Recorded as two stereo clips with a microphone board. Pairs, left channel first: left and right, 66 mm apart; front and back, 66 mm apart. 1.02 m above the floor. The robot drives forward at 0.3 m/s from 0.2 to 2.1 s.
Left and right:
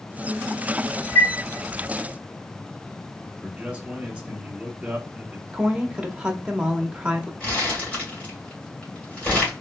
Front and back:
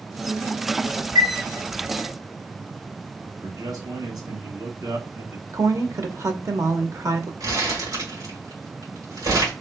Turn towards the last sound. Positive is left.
turn(degrees=155)